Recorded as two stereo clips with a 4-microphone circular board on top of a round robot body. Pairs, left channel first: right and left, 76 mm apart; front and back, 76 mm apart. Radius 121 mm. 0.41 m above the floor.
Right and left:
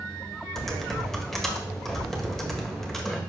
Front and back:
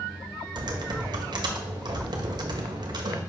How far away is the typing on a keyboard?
About 1.5 m.